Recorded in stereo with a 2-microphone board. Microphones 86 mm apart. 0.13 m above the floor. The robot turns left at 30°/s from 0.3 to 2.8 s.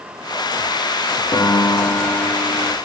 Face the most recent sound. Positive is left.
turn(degrees=40)